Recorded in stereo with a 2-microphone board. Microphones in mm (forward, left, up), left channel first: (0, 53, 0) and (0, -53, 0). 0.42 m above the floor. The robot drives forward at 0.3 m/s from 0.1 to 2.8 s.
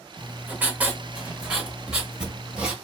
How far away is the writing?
About 0.8 m.